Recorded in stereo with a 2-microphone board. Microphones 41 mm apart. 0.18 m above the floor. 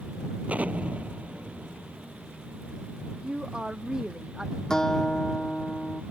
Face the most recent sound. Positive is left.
turn(degrees=15)  # may be behind; listen again after turning